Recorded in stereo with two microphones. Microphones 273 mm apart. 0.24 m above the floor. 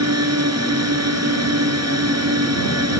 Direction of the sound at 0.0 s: 65° right (ahead or behind).